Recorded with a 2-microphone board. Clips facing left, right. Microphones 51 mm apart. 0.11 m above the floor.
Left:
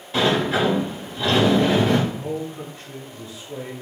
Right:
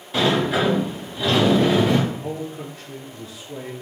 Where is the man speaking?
Centre (ahead or behind), 1.7 m.